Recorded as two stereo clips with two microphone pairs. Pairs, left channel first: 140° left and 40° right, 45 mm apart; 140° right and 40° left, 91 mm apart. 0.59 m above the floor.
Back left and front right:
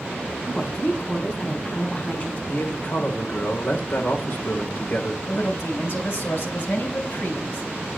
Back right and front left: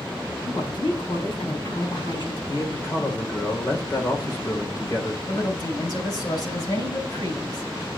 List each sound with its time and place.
0.4 s a woman speaking: 160° right, 4.5 m
2.5 s a man speaking: 170° left, 2.5 m
5.3 s a woman speaking: straight behind, 3.5 m